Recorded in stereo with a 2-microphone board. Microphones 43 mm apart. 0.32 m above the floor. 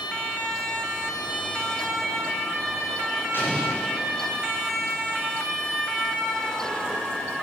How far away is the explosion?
About 8.5 m.